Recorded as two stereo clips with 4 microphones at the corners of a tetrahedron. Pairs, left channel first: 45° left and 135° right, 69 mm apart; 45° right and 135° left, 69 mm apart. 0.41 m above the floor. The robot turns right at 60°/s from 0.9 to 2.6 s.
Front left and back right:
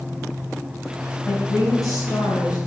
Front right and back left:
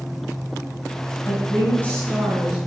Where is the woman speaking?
10° right, 3 m; by 2.6 s 70° left, 3 m.